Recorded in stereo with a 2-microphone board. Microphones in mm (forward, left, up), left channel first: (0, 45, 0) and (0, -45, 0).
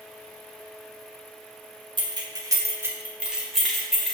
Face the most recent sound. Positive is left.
turn(degrees=10)  # may be behind; listen again after turning